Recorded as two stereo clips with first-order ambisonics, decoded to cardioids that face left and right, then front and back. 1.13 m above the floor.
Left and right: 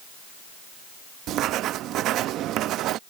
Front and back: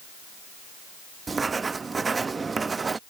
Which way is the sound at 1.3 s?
110° right.